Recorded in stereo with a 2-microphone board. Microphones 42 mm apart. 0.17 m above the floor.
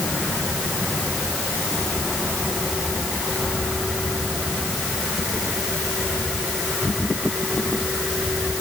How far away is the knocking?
I don't hear knocking.